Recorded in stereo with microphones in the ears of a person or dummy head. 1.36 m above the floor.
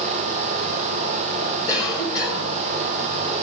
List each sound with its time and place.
1.7 s a cough: 20° left (ahead or behind), 5.5 m